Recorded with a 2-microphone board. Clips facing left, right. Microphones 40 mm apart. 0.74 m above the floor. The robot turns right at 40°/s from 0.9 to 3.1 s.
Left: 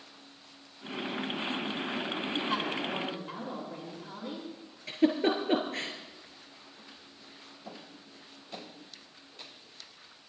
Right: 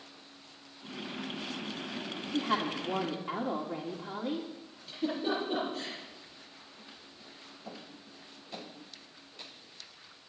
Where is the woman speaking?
130° right, 1.8 m; by 4.5 s 100° right, 1.8 m.